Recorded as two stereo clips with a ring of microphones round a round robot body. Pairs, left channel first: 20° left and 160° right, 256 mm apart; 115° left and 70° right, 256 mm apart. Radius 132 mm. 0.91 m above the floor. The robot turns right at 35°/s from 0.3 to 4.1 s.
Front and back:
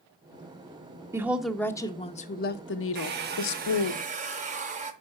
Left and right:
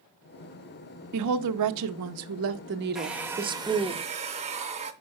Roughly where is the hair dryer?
Behind right.